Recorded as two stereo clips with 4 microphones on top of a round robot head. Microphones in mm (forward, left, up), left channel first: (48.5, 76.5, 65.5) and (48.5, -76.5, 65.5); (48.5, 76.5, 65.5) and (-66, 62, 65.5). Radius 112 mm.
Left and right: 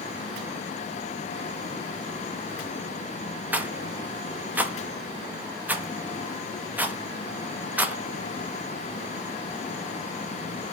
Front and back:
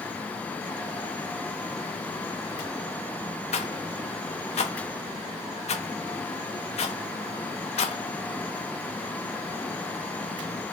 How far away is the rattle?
About 0.6 m.